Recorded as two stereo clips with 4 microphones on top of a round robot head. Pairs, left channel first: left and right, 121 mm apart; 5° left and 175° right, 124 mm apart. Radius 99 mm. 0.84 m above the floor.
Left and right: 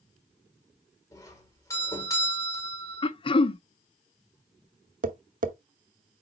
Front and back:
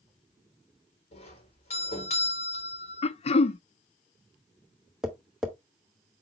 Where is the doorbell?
30° left, 4.5 m.